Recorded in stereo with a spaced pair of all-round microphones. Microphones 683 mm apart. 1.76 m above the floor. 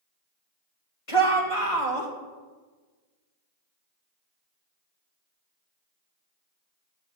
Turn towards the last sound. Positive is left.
turn(degrees=50)  # may be behind; listen again after turning